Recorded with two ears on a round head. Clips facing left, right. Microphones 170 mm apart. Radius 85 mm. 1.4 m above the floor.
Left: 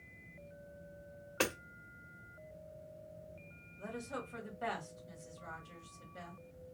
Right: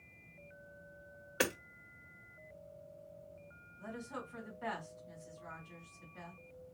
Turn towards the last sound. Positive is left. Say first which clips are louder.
# left 2 dB
turn(degrees=60)  # may be behind; listen again after turning